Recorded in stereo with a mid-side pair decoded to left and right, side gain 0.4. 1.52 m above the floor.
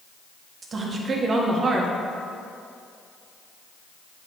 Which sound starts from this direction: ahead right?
A woman speaking, at 0.6 s.